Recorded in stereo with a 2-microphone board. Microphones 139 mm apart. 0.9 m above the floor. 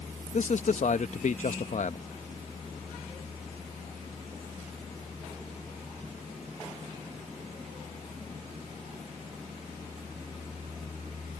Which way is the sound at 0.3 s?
60° left (ahead or behind).